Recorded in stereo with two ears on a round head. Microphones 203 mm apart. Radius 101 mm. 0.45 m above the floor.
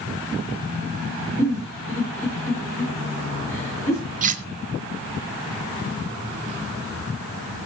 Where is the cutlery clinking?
35° right (ahead or behind), 1.0 m.